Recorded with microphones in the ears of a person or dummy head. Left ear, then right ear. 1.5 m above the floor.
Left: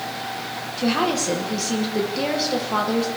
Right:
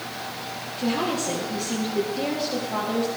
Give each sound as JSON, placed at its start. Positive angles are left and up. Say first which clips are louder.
{"t": 0.8, "sound": "a woman speaking", "louder": "left 4 dB", "side_deg": 55, "distance_m": 1.3}